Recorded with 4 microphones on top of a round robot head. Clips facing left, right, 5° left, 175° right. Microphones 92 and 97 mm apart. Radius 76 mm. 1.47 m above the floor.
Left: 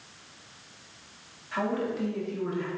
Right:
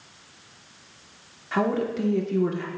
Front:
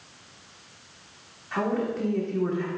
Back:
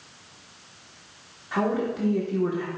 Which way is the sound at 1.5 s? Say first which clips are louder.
Right 5 dB, back 1 dB; 100° right.